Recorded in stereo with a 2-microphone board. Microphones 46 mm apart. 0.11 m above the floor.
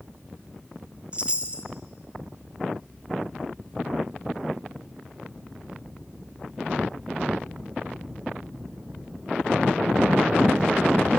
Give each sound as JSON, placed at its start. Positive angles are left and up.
{"t": 1.1, "sound": "a chime", "side_deg": -25, "distance_m": 1.4}